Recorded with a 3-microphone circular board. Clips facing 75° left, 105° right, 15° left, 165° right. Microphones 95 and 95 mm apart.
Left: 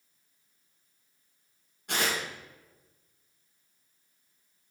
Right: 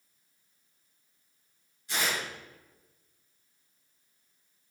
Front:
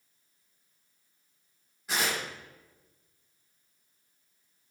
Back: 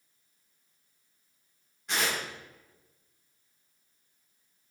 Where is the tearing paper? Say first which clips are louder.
Left 2 dB, even; 100° left, 3.5 m.